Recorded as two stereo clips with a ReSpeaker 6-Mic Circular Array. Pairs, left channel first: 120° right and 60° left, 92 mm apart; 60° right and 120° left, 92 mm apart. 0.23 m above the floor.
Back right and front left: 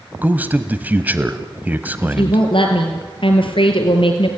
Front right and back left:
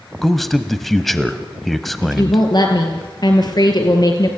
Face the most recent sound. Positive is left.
turn(degrees=-100)